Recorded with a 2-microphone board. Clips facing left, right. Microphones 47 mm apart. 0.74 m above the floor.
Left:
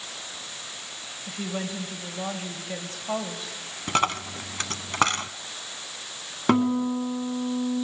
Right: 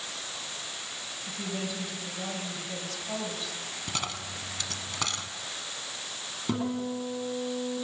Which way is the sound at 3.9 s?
50° left (ahead or behind).